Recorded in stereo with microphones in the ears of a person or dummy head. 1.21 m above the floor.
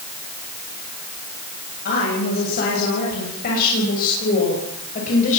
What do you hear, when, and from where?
1.9 s a woman speaking: 55° left (ahead or behind), 7.5 m; by 5.4 s 40° left (ahead or behind), 6.5 m